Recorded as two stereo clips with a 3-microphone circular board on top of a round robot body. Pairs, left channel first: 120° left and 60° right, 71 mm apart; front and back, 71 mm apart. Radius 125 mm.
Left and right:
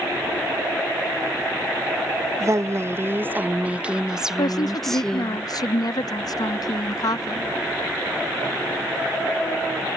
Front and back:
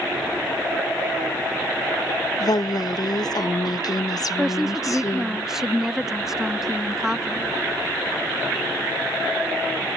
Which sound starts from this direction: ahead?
A woman speaking, at 2.4 s.